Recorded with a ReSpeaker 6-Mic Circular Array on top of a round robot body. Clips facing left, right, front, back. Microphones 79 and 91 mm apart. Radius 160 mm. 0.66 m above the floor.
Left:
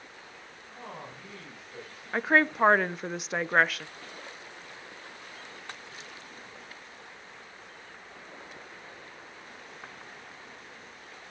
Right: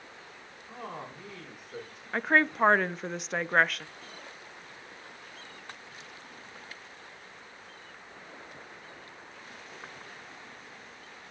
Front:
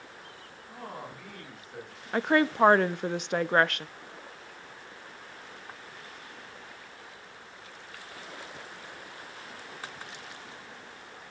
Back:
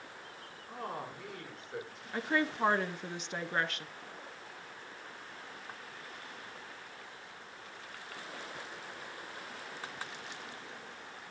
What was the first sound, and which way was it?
A man speaking, 115° right.